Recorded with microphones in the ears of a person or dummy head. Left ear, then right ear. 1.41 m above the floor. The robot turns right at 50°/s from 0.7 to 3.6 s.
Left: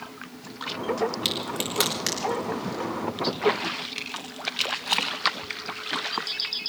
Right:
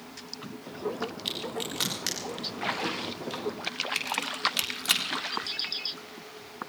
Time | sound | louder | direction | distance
1.2 | a crack | left 5 dB | 60° left (ahead or behind) | 3.5 m